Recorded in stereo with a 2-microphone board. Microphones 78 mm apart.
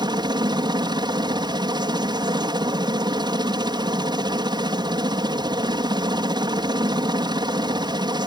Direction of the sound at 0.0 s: 60° right (ahead or behind).